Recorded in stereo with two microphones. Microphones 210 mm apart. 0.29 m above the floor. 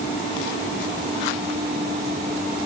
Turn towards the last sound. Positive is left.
No sound to turn to.